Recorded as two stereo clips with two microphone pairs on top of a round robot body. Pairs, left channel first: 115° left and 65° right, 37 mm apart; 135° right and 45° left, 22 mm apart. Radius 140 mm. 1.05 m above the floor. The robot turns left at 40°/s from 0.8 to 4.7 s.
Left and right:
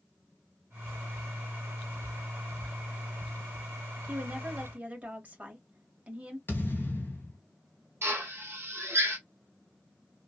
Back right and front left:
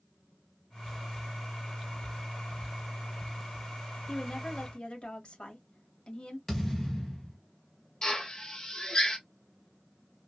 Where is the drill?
85° right, 1.2 m.